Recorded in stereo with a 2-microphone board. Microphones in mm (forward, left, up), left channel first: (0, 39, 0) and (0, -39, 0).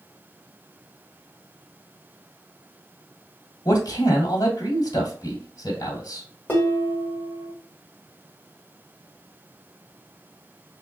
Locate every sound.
3.6 s a man speaking: 50° left (ahead or behind), 1.3 m
6.5 s dishes clattering: 25° left (ahead or behind), 1.4 m